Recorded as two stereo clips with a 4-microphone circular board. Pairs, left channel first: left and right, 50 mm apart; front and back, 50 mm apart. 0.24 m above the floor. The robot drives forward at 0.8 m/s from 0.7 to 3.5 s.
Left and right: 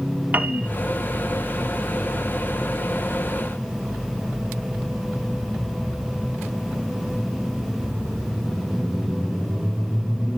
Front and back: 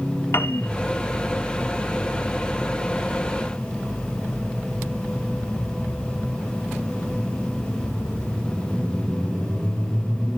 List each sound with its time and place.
0.3 s a piano: 35° right, 0.7 m